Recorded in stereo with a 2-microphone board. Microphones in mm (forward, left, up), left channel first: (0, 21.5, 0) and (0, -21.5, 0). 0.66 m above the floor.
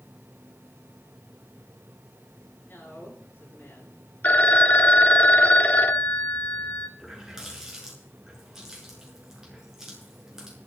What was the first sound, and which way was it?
A man speaking, 50° left (ahead or behind).